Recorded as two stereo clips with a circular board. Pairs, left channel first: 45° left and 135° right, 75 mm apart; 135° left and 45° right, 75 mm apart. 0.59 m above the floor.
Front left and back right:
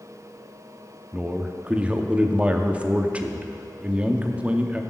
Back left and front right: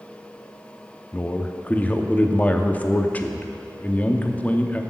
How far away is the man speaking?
About 0.6 m.